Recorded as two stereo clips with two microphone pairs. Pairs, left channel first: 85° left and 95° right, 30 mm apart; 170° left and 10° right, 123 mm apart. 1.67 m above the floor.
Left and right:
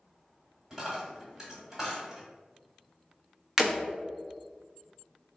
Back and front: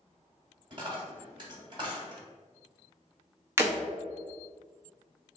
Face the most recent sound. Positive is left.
turn(degrees=-35)